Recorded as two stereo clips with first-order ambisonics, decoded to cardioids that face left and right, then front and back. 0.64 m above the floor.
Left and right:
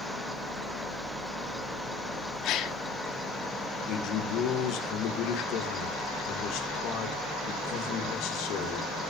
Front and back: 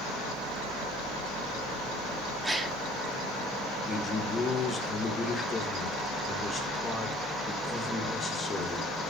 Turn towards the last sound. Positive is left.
turn(degrees=70)